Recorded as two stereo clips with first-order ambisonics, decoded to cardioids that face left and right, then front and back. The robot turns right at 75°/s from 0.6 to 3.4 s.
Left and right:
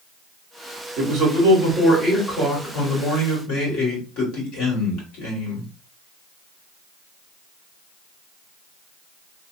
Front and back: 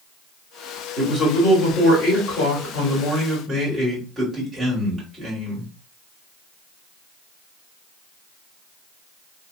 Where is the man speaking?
80° right, 2 m; by 5.7 s 100° left, 2 m.